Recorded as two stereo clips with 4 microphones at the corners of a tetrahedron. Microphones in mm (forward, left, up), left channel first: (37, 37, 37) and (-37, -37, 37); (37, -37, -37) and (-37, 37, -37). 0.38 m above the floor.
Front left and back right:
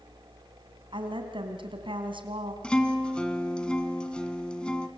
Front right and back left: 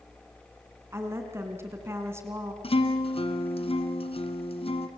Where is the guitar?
35° right, 2.5 m.